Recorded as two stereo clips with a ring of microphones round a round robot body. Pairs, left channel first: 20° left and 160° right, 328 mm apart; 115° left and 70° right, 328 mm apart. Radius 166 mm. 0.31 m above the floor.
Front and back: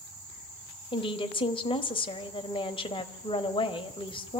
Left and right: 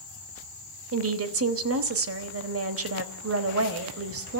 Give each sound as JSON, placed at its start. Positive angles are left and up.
{"t": 0.9, "sound": "a woman speaking", "azimuth_deg": -45, "distance_m": 1.2}